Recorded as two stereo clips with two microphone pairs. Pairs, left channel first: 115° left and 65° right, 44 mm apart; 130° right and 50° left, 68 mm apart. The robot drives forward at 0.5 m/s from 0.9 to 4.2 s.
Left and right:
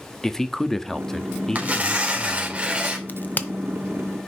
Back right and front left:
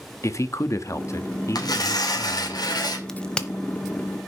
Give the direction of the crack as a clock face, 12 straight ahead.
7 o'clock.